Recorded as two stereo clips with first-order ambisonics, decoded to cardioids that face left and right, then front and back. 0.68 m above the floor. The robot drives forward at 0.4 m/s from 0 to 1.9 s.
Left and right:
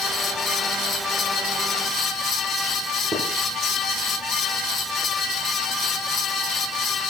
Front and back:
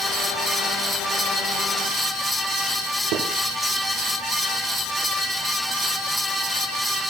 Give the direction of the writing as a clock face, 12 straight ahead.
6 o'clock.